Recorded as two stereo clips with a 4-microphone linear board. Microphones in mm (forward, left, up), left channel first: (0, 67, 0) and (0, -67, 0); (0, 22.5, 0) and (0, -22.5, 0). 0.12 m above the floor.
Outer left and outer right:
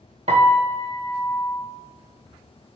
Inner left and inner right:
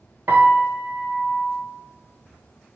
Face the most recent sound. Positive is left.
turn(degrees=-55)  # may be behind; listen again after turning